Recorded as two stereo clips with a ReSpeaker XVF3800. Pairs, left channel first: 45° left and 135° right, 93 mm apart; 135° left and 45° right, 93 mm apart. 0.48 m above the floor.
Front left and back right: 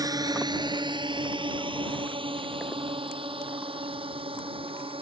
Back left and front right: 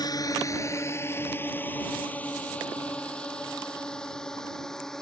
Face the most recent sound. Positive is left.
turn(degrees=-140)